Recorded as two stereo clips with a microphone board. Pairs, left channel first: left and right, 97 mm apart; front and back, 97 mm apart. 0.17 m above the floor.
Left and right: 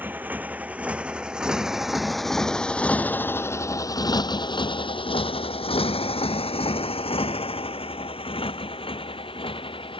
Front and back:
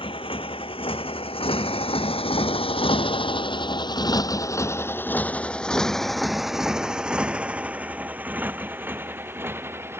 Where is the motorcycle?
20° right; by 10.0 s 115° left.